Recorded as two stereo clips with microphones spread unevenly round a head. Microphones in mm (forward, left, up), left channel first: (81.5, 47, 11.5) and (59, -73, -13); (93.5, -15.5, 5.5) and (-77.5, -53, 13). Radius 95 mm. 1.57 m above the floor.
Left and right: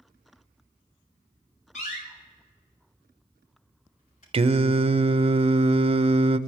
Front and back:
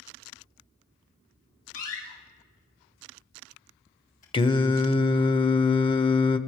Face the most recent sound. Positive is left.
turn(degrees=-50)